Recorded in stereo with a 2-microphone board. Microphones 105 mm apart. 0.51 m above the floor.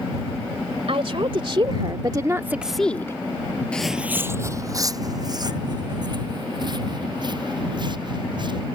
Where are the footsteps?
10° left (ahead or behind); by 8.7 s 45° right (ahead or behind).